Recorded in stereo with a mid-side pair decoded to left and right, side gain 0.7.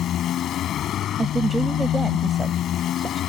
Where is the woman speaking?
15° right.